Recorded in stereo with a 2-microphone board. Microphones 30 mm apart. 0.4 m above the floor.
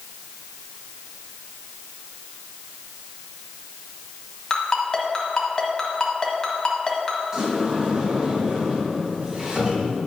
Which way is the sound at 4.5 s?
30° left (ahead or behind).